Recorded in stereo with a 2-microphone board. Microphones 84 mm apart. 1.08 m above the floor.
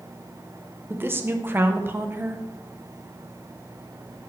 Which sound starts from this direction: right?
A woman speaking, at 0.9 s.